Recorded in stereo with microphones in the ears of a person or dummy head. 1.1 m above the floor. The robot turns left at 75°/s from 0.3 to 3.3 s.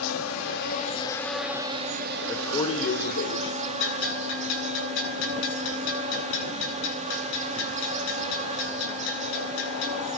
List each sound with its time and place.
0.0 s an insect: 85° left, 3 m; by 10.2 s 140° right, 3 m
2.3 s a man speaking: straight behind, 4 m; by 3.5 s 105° left, 4 m
3.8 s a bell: 75° left (ahead or behind), 9 m